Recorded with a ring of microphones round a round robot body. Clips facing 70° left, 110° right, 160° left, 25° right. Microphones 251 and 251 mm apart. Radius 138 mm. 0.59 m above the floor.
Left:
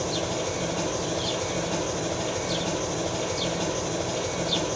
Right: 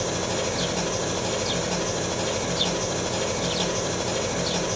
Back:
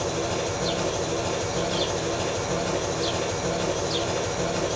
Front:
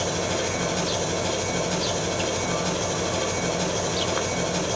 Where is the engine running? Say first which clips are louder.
Right 2 dB, even; 55° right, 1.2 m.